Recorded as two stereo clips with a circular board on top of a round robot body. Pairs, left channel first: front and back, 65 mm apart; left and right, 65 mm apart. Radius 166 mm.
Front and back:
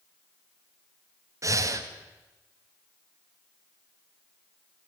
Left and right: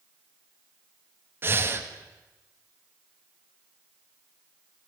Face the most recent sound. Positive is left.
turn(degrees=-145)